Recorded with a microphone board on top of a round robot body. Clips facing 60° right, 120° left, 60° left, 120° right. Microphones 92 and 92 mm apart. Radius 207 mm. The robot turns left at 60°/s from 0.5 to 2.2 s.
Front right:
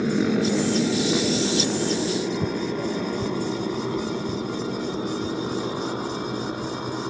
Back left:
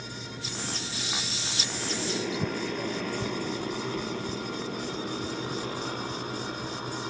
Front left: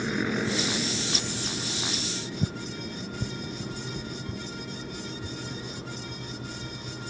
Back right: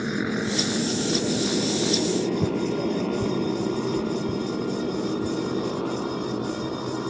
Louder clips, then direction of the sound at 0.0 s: Front right 19 dB, back right 2 dB; 40° right.